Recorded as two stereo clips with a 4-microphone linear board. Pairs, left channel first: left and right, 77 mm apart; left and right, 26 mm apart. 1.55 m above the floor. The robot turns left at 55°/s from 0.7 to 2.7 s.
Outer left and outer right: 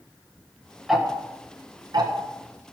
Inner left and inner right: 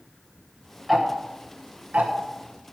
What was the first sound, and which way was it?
Ticking, 5° right (ahead or behind).